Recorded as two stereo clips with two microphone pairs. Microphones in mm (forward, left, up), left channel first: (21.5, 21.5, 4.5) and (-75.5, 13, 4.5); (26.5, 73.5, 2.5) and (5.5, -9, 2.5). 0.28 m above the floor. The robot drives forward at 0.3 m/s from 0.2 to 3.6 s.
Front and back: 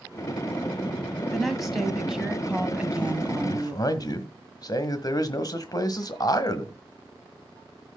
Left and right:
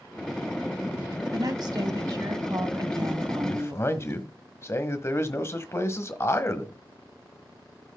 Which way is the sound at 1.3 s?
85° right.